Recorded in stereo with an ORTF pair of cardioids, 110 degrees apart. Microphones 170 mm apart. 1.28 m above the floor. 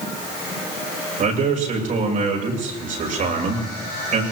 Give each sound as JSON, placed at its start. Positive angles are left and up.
{"t": 1.2, "sound": "a man speaking", "azimuth_deg": -55, "distance_m": 6.5}